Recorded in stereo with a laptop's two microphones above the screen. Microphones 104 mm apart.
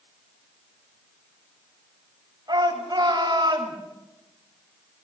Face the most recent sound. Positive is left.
turn(degrees=-40)  # may be behind; listen again after turning